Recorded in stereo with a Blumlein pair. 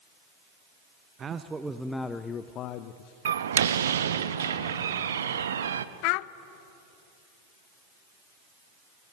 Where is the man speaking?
25° right, 1.0 m; by 3.1 s 50° left, 1.1 m.